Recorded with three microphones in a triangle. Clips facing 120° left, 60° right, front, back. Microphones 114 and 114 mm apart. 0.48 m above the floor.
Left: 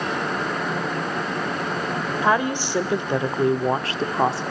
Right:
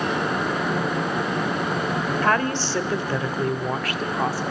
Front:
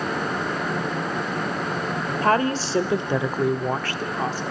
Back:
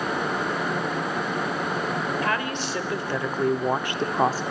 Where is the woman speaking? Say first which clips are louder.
Left 3 dB, front 6 dB; 45° left, 1.6 m; by 4.4 s 170° left, 1.0 m.